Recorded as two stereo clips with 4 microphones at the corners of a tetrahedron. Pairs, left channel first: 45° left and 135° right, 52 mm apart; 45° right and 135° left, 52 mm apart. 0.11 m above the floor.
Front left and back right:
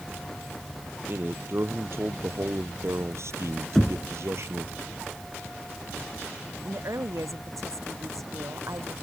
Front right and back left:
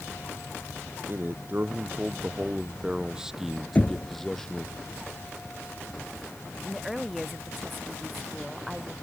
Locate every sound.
1.1 s a man speaking: straight behind; by 4.7 s 115° right
3.8 s knocking: 35° right
6.7 s a woman speaking: 135° right